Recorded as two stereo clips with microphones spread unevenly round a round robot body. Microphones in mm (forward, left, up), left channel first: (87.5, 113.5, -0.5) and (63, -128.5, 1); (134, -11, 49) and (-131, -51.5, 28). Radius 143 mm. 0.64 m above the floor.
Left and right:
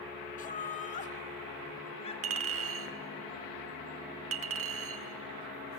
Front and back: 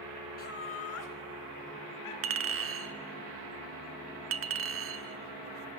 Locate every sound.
0.4 s laughter: 50° left, 1.4 m; by 3.2 s 15° left, 5.5 m
2.2 s a clink: 135° right, 1.2 m